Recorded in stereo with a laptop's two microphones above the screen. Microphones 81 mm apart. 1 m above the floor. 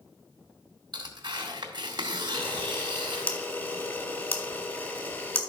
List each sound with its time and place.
0.9 s tearing paper: 60° right (ahead or behind), 2.0 m
2.3 s a camera shutter: 25° left (ahead or behind), 2.5 m